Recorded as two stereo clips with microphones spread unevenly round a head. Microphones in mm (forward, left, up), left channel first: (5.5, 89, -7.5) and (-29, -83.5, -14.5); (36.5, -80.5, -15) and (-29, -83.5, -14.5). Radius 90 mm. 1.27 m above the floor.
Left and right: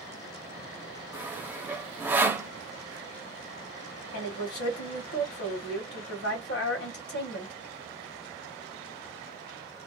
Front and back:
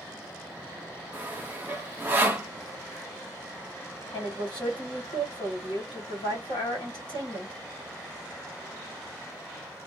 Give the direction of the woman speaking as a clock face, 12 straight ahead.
10 o'clock.